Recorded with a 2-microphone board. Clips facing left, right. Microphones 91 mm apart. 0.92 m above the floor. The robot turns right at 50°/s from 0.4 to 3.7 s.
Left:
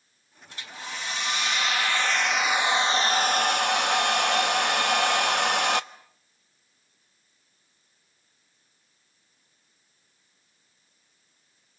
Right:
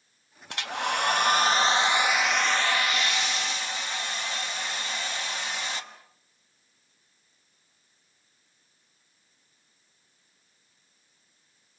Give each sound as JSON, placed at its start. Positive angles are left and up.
{"t": 0.5, "sound": "a hair dryer", "azimuth_deg": -90, "distance_m": 0.9}